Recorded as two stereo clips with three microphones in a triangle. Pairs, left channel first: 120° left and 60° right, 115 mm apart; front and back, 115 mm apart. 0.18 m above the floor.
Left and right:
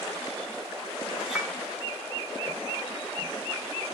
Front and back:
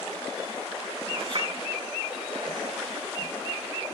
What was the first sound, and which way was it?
A clink, 140° right.